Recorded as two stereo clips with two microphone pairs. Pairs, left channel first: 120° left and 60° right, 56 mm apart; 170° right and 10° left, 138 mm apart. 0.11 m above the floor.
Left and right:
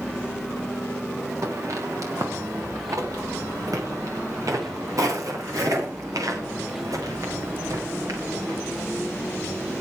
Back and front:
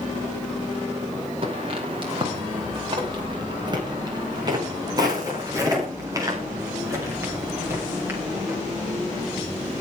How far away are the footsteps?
About 7.5 m.